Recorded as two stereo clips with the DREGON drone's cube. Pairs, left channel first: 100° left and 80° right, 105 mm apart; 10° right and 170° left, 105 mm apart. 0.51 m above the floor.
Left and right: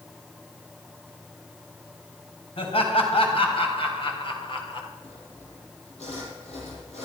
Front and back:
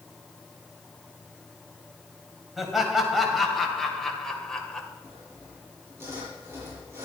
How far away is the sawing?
About 5.5 m.